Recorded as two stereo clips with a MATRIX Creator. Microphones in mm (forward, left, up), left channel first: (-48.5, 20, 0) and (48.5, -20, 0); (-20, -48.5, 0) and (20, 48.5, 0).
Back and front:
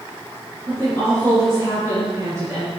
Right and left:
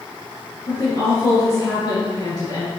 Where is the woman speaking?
75° right, 2.5 m.